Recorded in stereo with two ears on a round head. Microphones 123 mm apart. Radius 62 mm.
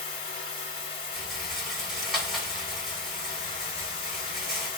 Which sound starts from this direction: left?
Running water, at 0.0 s.